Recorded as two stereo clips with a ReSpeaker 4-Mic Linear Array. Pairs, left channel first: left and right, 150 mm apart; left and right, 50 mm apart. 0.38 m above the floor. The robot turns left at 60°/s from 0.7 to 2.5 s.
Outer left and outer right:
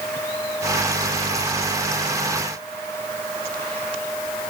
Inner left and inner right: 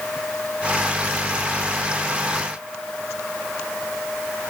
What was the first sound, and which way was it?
Only background noise.